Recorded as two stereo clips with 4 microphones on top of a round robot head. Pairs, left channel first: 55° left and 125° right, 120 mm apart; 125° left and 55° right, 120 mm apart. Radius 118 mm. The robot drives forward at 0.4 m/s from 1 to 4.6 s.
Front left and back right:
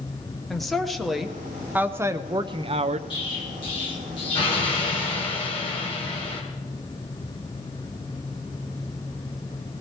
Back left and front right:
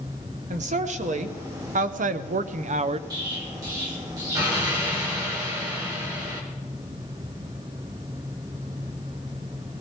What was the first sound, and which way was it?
A woman speaking, 35° right.